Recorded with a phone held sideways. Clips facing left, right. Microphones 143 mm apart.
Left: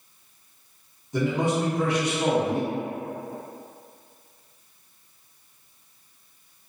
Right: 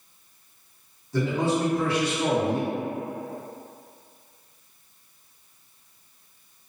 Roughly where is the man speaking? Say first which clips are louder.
Even; centre.